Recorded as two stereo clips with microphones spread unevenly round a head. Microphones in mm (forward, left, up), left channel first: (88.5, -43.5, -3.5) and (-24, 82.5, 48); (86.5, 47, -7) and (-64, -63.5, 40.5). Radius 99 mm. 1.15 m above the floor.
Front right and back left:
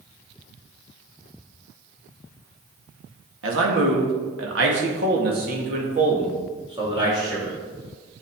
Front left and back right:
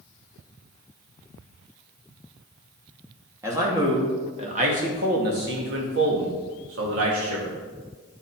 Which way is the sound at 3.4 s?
135° left.